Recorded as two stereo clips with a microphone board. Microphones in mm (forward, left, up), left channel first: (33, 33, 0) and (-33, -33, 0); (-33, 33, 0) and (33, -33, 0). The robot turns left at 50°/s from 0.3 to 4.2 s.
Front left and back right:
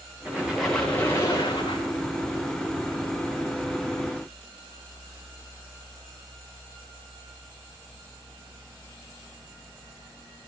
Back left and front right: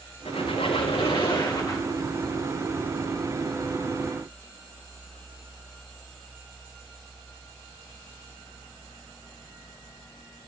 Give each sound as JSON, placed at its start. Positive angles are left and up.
{"t": 0.2, "sound": "a squeak", "azimuth_deg": 150, "distance_m": 7.5}